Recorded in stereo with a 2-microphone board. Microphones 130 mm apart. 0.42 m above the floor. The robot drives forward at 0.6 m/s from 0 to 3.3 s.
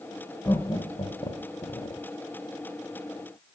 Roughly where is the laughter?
Left.